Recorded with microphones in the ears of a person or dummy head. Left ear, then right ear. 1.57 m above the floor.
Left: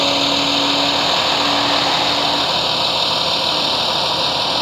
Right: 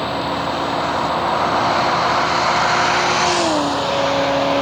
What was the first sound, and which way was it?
A vehicle, 80° left.